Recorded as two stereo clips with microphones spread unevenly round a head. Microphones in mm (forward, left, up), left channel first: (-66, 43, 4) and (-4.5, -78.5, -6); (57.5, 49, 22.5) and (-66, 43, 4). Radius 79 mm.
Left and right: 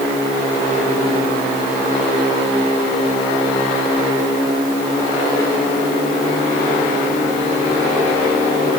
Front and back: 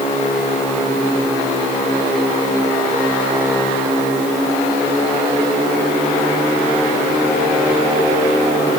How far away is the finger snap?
No finger snap in this recording.